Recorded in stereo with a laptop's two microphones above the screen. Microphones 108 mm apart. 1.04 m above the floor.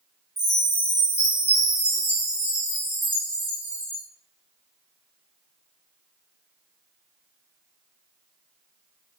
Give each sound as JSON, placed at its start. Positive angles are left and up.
{"t": 0.4, "sound": "a chime", "side_deg": 80, "distance_m": 4.0}